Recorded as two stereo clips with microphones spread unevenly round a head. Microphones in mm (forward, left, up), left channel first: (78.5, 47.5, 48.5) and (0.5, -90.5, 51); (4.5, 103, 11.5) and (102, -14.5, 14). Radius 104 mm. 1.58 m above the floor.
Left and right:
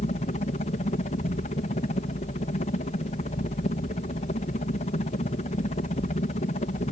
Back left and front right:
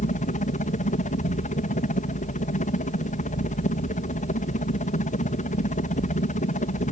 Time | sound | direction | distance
0.0 | a helicopter | 105° left | ?